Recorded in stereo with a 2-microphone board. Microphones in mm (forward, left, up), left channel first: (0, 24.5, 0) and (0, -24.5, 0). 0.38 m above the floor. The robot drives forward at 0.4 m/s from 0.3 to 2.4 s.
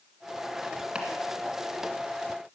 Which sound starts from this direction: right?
Chopping, at 0.9 s.